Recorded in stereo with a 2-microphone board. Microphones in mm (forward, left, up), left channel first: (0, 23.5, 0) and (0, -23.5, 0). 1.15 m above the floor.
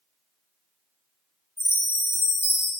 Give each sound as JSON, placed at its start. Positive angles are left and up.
{"t": 1.6, "sound": "a chime", "side_deg": -55, "distance_m": 1.7}